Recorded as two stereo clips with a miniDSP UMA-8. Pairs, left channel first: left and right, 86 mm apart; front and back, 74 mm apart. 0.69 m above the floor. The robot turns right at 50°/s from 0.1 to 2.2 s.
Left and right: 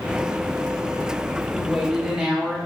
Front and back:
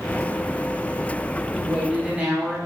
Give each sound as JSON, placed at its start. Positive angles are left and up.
{"t": 1.5, "sound": "a woman speaking", "azimuth_deg": 180, "distance_m": 0.6}